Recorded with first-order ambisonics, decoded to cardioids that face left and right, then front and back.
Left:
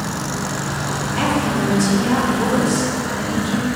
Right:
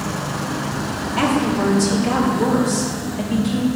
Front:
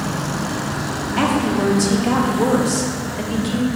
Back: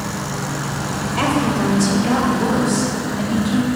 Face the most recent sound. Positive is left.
turn(degrees=5)